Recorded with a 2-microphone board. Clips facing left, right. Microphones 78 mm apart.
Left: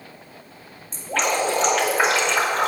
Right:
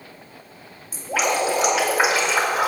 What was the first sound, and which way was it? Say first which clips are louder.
Dripping: right 1 dB; 10° right (ahead or behind).